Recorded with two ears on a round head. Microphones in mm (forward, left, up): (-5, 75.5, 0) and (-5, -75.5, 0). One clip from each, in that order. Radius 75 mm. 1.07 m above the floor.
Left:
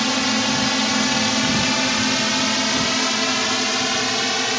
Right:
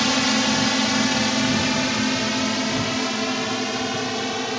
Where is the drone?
Centre (ahead or behind); by 4.6 s 50° left (ahead or behind).